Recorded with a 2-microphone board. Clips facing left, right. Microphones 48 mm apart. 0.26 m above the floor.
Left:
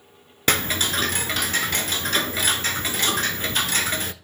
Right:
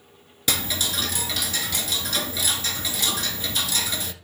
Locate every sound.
0.5 s ticking: 45° left (ahead or behind), 0.6 m